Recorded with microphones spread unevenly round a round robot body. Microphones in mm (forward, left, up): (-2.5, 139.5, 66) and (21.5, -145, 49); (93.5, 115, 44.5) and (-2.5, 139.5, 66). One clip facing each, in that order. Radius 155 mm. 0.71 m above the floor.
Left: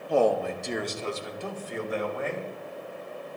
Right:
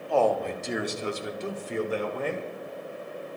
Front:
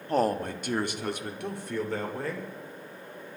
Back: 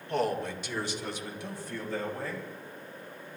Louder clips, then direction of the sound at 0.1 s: Left 1 dB, front 4 dB; 25° left.